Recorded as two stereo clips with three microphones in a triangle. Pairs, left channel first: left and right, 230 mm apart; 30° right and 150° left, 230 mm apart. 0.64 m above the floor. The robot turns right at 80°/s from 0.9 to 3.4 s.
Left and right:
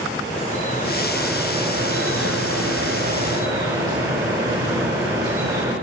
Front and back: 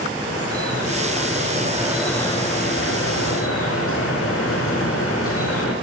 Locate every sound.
0.3 s dripping: 145° left, 4.5 m; by 5.8 s 15° right, 4.5 m